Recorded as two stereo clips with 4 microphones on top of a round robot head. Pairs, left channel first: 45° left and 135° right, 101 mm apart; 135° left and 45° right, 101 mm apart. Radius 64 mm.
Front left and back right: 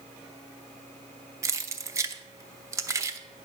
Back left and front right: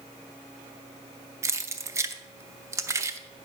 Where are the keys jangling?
90° right, 0.6 m.